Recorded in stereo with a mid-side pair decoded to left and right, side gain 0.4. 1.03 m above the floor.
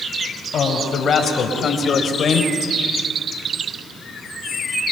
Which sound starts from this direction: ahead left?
A man speaking, at 0.5 s.